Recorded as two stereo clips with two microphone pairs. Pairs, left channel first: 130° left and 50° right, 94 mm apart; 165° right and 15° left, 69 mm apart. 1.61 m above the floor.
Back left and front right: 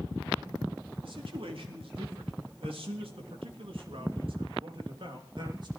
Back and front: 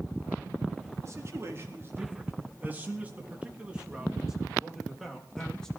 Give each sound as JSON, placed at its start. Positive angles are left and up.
{"t": 1.0, "sound": "a man speaking", "azimuth_deg": -30, "distance_m": 4.0}